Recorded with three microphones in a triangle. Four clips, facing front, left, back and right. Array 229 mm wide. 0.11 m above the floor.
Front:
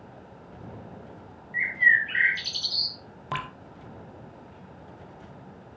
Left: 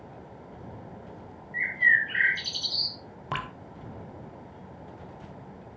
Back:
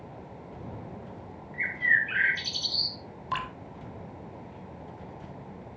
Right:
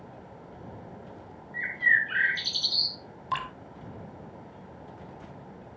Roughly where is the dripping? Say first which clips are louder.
Right 2 dB, back 1 dB; ahead left.